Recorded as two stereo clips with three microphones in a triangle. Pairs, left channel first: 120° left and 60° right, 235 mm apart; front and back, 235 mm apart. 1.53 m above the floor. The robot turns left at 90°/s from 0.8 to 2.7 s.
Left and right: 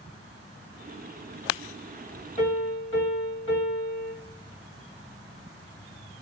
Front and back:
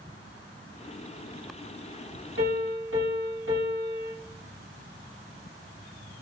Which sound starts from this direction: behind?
A piano, at 2.4 s.